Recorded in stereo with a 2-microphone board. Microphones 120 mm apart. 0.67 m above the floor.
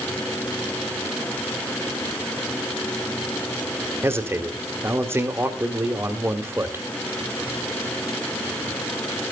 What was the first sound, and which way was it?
A man speaking, 20° right (ahead or behind).